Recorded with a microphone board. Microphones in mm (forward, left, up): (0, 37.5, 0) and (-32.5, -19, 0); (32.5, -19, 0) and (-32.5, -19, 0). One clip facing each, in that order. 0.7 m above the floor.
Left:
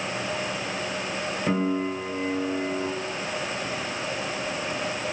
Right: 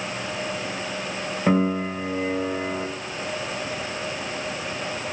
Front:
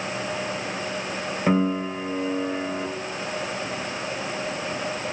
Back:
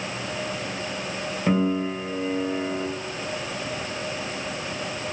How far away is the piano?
About 1.2 m.